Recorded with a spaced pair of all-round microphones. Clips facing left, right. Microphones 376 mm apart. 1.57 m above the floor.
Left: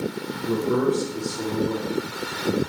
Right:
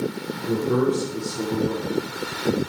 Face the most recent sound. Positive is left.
turn(degrees=-65)  # may be behind; listen again after turning